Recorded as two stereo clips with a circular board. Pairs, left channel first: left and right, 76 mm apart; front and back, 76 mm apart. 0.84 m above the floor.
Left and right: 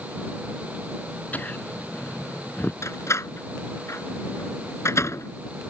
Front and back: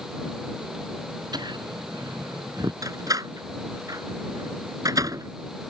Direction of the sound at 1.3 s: 160° left.